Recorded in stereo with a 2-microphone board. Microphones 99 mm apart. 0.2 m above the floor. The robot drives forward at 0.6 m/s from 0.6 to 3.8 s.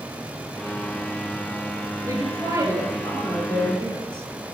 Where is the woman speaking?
30° right (ahead or behind), 3 m; by 4.3 s 25° right (ahead or behind), 4 m.